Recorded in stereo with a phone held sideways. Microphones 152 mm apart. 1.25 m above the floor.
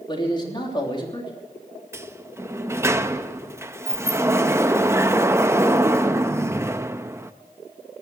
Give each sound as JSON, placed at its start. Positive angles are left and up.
{"t": 0.1, "sound": "a man speaking", "side_deg": 30, "distance_m": 3.0}
{"t": 1.9, "sound": "a sliding door", "side_deg": -20, "distance_m": 0.6}